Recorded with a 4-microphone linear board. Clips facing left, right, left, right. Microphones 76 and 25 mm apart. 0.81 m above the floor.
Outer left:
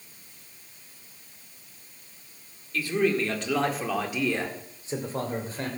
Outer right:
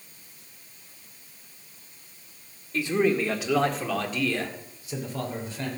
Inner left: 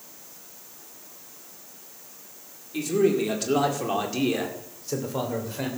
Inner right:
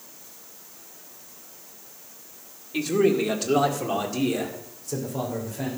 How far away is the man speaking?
About 2 m.